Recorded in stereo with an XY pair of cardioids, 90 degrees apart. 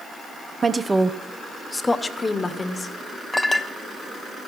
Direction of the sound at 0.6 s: 40° right.